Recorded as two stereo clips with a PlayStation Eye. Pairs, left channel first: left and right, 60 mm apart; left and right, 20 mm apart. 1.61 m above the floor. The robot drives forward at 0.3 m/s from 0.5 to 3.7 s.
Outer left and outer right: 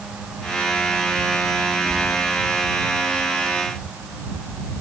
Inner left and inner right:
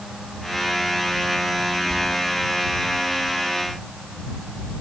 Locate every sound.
1.9 s whispering: 55° left (ahead or behind), 0.9 m